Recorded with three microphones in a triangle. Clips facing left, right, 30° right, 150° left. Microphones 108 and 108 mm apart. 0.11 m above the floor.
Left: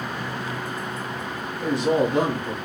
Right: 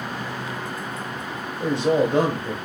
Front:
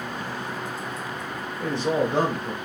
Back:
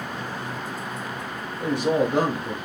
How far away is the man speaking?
About 1.6 m.